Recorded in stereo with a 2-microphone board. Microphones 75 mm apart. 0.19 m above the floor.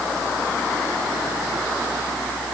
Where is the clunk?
I don't hear a clunk.